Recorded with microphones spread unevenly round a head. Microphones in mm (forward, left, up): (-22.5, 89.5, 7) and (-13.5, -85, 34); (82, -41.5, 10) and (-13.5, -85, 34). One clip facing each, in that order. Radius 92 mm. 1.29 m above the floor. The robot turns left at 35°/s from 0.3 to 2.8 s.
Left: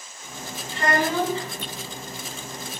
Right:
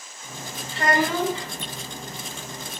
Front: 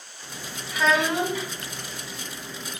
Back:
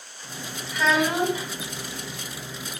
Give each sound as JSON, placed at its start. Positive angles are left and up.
{"t": 0.7, "sound": "a child speaking", "azimuth_deg": -70, "distance_m": 1.4}